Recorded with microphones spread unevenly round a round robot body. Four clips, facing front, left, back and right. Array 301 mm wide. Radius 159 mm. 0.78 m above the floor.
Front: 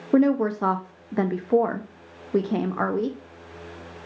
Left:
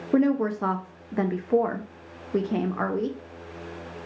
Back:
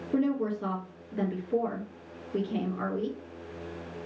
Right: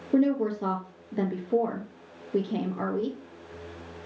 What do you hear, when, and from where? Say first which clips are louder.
0.1 s a woman speaking: left 2 dB, front 8 dB; 10° left, 0.6 m